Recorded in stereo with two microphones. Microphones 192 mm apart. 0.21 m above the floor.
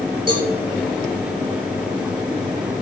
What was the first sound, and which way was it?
A cowbell, 60° right (ahead or behind).